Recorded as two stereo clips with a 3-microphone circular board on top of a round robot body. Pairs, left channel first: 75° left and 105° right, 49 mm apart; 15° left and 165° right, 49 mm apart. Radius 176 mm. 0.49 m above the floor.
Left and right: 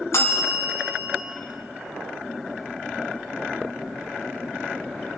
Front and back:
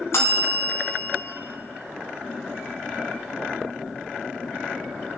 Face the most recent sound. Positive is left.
turn(degrees=45)